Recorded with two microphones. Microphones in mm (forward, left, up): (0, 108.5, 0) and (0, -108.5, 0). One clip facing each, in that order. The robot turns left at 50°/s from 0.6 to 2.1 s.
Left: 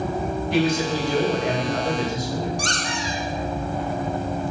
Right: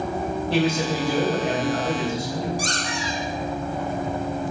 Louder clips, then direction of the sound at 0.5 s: Left 1 dB; 150° right.